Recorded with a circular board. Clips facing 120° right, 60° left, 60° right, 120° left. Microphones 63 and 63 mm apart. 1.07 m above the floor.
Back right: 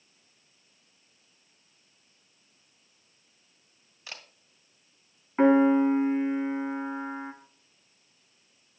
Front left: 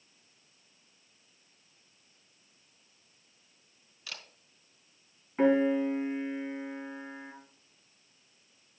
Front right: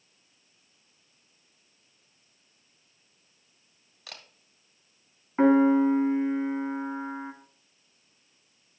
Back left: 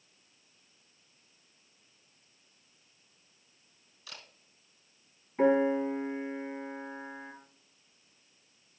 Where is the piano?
65° right, 1.7 m.